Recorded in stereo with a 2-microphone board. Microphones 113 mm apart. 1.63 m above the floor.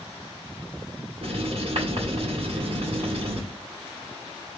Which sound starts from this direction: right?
Writing, at 1.2 s.